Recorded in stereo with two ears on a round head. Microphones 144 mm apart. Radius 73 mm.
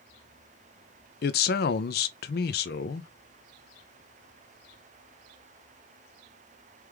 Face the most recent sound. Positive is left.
turn(degrees=70)  # may be behind; listen again after turning